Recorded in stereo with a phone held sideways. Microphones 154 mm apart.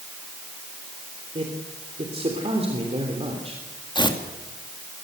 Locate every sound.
1.4 s a man speaking: 40° right (ahead or behind), 3 m
4.0 s tearing paper: 30° left (ahead or behind), 2.5 m